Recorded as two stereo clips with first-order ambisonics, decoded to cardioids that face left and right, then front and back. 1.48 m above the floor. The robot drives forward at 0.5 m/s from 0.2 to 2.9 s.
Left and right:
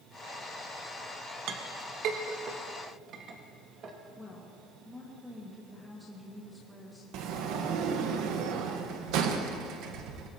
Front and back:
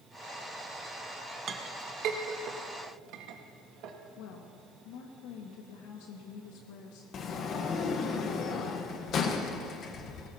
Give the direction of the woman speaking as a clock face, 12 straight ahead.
12 o'clock.